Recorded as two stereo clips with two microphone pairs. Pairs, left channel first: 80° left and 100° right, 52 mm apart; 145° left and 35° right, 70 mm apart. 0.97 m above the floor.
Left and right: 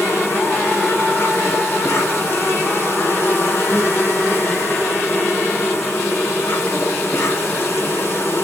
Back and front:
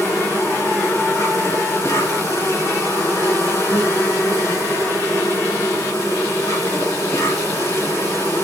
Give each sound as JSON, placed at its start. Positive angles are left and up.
{"t": 0.0, "sound": "an insect", "azimuth_deg": 110, "distance_m": 3.0}